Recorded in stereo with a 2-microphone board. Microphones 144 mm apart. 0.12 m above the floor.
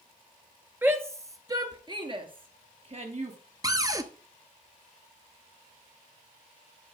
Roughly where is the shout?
Centre.